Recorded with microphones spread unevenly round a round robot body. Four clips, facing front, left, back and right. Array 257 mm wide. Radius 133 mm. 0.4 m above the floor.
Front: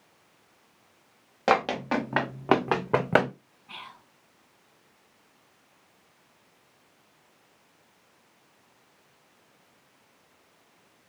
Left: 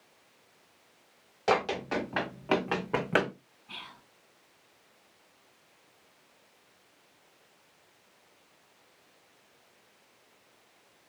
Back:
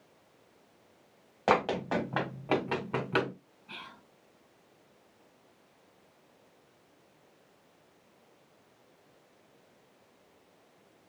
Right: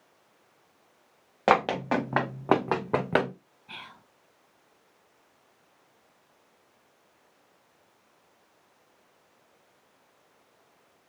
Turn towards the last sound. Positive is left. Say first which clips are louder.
# right 2 dB, front 3 dB
turn(degrees=-90)